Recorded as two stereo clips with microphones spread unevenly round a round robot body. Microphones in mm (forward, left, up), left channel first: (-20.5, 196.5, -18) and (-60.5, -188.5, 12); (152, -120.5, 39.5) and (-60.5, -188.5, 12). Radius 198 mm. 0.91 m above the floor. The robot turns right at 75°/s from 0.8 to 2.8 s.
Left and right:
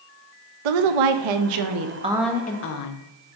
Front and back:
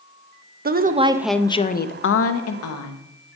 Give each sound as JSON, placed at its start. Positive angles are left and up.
{"t": 0.7, "sound": "a woman speaking", "azimuth_deg": -110, "distance_m": 0.7}